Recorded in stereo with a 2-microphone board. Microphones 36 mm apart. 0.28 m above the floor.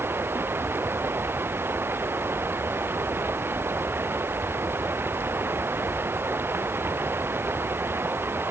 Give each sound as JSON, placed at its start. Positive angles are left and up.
{"t": 0.0, "sound": "running water", "side_deg": -85}